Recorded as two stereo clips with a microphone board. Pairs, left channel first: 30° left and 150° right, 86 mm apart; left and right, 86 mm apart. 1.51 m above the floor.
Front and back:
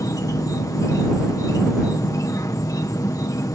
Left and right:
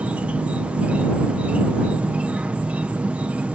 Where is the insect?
15° right.